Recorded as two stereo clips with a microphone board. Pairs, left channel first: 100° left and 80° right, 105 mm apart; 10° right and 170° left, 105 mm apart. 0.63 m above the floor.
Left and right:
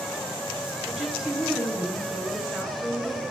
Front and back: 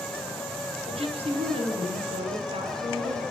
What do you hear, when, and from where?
0.9 s a woman speaking: 165° right, 9.5 m